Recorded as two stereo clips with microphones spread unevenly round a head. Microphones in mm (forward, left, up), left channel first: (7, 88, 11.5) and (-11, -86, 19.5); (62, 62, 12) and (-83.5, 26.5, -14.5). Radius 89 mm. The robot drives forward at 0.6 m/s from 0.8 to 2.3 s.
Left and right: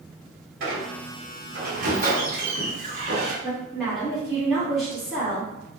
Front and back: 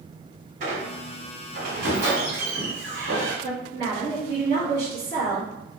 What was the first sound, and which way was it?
A squeak, 115° right.